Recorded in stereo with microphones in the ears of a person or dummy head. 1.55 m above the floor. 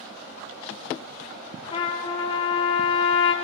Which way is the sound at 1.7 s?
30° left (ahead or behind).